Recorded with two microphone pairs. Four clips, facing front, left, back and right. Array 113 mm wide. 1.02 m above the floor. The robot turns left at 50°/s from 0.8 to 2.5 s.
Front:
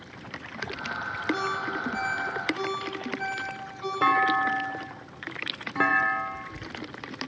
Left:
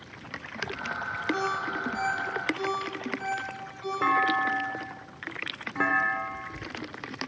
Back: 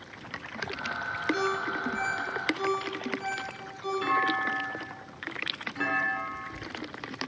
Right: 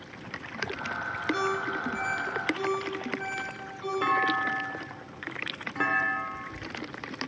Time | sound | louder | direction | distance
1.3 | a ringtone | right 1 dB, even | 30° left | 5.5 m
4.0 | a clunk | left 3 dB, front 6 dB | 10° left | 0.8 m